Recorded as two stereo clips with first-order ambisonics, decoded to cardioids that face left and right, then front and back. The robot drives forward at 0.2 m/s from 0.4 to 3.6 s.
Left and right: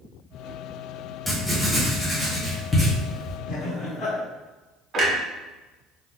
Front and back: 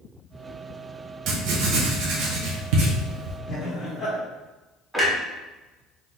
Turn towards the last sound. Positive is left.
turn(degrees=-110)